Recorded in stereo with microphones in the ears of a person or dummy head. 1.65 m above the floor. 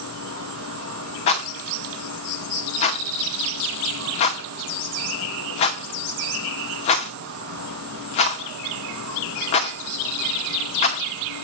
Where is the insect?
70° right (ahead or behind), 3 m.